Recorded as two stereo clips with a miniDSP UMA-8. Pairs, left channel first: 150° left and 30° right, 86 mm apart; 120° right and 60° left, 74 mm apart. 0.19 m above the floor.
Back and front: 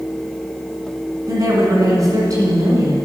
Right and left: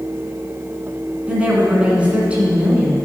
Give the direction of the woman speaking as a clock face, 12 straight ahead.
12 o'clock.